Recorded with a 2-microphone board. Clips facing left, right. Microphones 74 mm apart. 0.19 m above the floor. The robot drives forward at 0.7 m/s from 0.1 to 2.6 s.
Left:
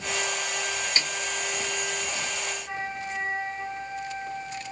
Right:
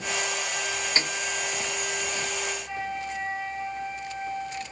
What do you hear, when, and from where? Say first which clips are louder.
1.0 s a snare drum: right 2 dB; 30° right (ahead or behind), 0.5 m; by 1.1 s 35° right (ahead or behind), 0.5 m
2.7 s a flute: right 1 dB; 25° left (ahead or behind), 2 m